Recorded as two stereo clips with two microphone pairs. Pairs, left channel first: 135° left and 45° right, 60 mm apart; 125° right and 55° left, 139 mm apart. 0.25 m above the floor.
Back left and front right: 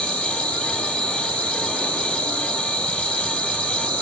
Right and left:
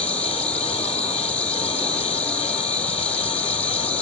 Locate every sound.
0.0 s an insect: 165° left, 2 m